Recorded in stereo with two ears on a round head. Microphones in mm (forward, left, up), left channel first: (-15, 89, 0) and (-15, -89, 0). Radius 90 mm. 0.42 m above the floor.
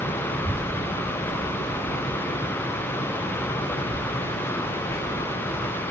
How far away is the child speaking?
About 1.9 m.